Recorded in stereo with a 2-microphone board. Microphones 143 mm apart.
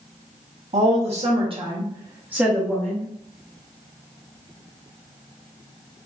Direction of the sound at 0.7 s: 50° right (ahead or behind).